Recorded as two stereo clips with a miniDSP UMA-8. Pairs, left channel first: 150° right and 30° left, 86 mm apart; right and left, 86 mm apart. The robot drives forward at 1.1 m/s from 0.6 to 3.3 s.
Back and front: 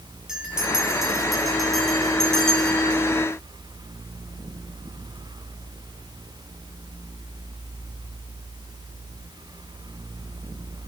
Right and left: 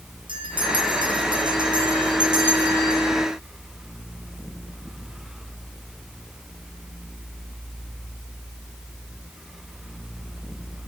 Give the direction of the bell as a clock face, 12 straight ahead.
8 o'clock.